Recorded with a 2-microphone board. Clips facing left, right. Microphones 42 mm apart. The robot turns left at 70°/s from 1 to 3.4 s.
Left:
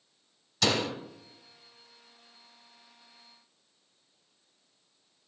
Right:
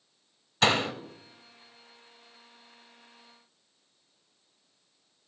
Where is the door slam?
35° right (ahead or behind), 0.8 m.